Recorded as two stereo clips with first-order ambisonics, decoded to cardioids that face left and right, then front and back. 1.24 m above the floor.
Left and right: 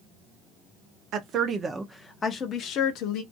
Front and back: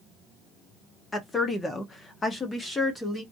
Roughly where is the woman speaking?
Right.